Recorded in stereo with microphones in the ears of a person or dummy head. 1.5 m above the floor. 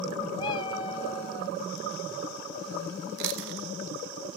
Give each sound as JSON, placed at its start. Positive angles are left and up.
{"t": 0.4, "sound": "a cat meowing", "side_deg": 30, "distance_m": 1.2}
{"t": 3.2, "sound": "chewing", "side_deg": -60, "distance_m": 1.0}